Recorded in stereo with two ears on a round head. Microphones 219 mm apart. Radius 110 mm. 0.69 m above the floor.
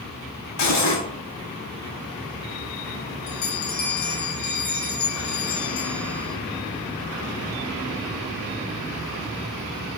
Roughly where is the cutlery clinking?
Left.